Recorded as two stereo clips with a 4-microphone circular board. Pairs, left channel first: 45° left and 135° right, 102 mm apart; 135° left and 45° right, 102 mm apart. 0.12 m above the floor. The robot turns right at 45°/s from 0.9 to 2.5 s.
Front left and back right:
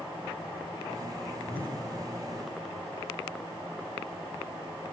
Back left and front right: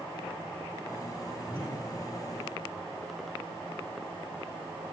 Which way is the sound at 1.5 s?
115° right.